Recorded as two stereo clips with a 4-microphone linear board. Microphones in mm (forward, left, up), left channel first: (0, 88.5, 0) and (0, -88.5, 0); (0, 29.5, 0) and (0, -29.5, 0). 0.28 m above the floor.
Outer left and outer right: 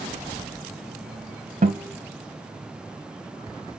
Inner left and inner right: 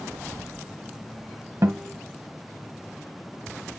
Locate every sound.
1.6 s a guitar: 50° right (ahead or behind), 1.4 m